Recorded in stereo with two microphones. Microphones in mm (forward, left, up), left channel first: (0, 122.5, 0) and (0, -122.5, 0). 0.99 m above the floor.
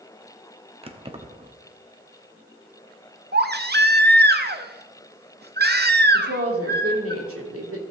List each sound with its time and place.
0.8 s keys jangling: 25° right (ahead or behind), 1.0 m
3.3 s a baby crying: 40° right (ahead or behind), 0.8 m
6.1 s a woman speaking: 65° right (ahead or behind), 2.5 m